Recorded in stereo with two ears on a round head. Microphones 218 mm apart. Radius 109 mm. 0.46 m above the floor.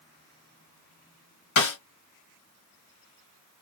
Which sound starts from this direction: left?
A snare drum, at 1.6 s.